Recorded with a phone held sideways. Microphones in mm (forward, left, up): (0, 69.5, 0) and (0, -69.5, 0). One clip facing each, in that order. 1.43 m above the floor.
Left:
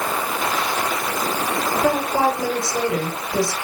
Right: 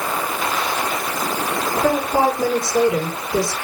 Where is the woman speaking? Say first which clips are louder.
Right 2 dB; 25° right (ahead or behind), 5 m.